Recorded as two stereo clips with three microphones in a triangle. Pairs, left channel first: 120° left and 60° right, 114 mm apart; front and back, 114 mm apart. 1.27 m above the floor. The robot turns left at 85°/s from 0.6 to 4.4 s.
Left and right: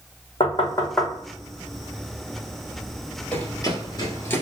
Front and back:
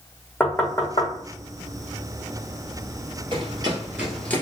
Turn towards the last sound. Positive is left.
turn(degrees=55)